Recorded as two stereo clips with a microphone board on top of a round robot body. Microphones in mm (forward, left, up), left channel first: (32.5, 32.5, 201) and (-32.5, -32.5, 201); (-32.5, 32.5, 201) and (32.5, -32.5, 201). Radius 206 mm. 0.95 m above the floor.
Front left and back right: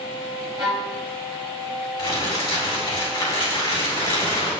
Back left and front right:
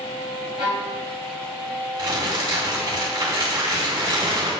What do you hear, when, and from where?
0.6 s a violin: 85° right, 0.9 m
2.0 s crumpling: straight ahead, 3.5 m